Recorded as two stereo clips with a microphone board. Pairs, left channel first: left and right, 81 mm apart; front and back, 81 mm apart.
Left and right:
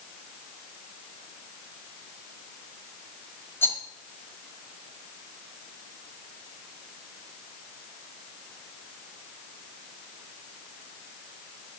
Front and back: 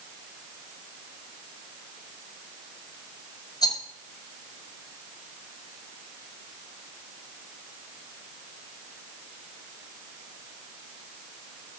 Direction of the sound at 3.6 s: 30° left.